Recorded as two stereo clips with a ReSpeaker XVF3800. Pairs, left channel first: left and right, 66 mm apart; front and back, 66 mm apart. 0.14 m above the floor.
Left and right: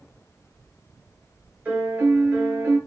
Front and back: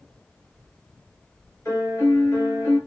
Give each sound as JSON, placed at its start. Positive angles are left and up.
{"t": 1.6, "sound": "a piano", "azimuth_deg": -30, "distance_m": 2.5}